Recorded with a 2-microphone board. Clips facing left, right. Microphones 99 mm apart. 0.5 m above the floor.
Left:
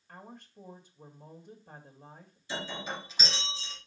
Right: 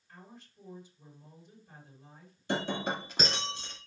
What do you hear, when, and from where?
0.1 s a woman speaking: 60° left (ahead or behind), 2 m
2.5 s breaking glass: 60° right (ahead or behind), 1.3 m